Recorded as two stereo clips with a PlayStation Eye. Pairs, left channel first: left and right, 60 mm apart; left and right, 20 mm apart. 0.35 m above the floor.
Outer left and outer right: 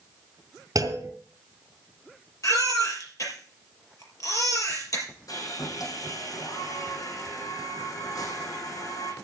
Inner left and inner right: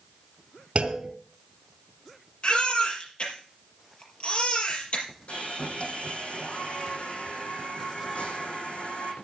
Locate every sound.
0.8 s a clunk: 70° right (ahead or behind), 3 m
2.4 s a baby crying: 65° left (ahead or behind), 5 m
5.3 s sawing: 70° left (ahead or behind), 10 m